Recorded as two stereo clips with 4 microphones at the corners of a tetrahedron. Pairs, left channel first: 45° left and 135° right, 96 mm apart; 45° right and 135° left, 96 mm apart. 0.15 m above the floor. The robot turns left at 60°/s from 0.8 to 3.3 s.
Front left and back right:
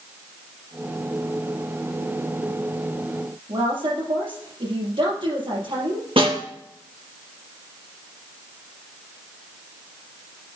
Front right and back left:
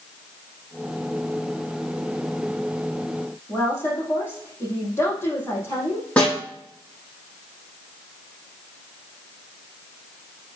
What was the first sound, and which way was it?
A woman speaking, 110° right.